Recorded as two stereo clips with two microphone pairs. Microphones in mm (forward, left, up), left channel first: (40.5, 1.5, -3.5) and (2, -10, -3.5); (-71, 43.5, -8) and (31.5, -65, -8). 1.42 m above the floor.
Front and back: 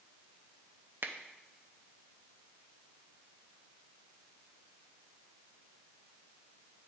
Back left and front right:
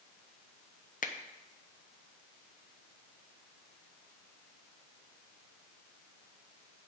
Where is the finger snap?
160° left, 0.6 m.